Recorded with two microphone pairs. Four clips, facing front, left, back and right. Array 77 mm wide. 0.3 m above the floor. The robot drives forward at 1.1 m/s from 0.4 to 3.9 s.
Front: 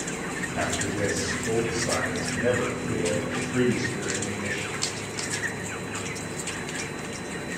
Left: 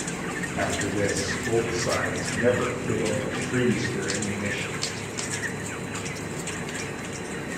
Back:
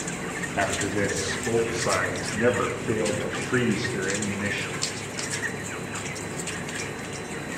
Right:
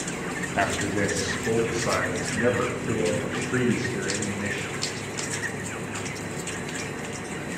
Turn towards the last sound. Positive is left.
turn(degrees=-160)